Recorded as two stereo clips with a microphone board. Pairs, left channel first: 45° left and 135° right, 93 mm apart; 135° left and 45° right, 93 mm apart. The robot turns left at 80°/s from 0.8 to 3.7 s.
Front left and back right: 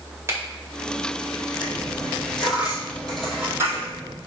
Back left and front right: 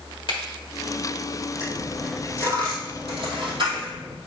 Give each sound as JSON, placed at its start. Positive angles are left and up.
{"t": 0.3, "sound": "a finger snap", "azimuth_deg": 165, "distance_m": 2.0}
{"t": 1.6, "sound": "a dropped coin", "azimuth_deg": 85, "distance_m": 2.5}